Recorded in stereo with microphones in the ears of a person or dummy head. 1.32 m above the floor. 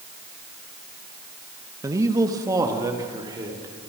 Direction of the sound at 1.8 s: 15° right (ahead or behind).